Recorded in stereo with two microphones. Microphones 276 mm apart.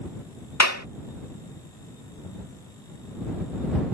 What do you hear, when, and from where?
0.6 s a clap: 80° left